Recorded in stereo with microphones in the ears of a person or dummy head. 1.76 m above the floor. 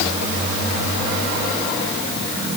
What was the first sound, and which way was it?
Only background noise.